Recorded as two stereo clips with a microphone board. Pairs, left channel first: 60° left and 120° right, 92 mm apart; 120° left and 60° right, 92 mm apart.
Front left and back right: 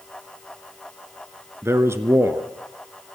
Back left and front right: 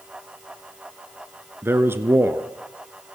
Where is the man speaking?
95° right, 1.4 m.